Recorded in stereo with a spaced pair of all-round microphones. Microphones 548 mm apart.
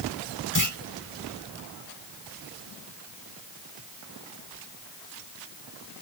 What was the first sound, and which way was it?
A clunk, 35° left (ahead or behind).